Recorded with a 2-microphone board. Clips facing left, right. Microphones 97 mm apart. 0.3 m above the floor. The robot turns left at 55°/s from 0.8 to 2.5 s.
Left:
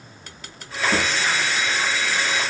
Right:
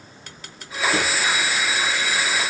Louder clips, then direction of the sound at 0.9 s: Left 1 dB; 50° left (ahead or behind).